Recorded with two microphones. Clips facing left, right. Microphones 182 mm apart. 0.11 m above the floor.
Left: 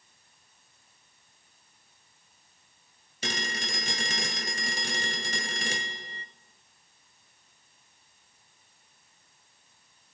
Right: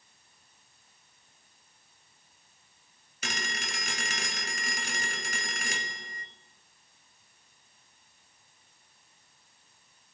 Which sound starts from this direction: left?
A phone ringing, at 3.2 s.